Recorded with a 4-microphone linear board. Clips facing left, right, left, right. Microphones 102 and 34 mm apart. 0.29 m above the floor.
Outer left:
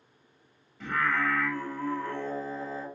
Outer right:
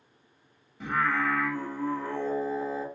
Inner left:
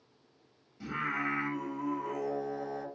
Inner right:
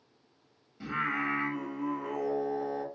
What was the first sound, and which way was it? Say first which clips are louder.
Singing: outer right 1 dB, inner right 2 dB; 20° right (ahead or behind).